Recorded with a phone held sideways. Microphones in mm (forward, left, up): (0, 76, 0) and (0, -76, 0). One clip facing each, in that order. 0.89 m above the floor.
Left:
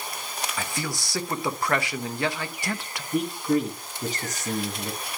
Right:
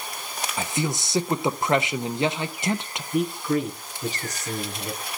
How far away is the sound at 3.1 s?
About 8 m.